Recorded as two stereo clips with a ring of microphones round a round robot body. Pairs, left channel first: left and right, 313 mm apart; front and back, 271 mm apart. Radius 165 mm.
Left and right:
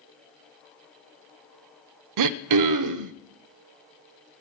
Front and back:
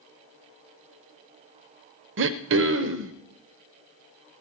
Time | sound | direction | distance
2.2 | throat clearing | 125° right | 0.5 m